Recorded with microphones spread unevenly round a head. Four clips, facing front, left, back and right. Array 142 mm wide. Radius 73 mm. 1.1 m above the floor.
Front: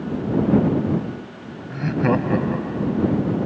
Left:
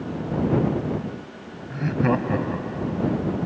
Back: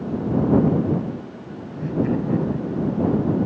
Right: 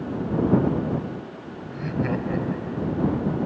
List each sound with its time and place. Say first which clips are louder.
1.7 s laughter: left 4 dB, front 2 dB; 30° left